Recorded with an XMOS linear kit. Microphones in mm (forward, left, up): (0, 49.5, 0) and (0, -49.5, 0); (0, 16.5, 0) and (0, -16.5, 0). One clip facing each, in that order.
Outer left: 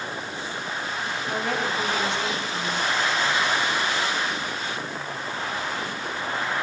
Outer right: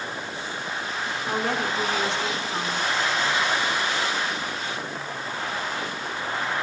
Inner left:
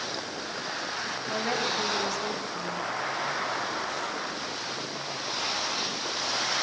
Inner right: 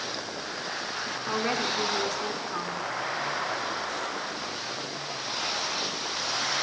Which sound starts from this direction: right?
A woman speaking, at 1.3 s.